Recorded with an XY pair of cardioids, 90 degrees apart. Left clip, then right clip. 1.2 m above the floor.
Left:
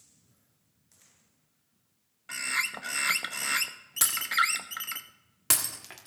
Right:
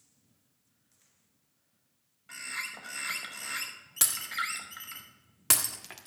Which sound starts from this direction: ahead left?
A bird, at 2.3 s.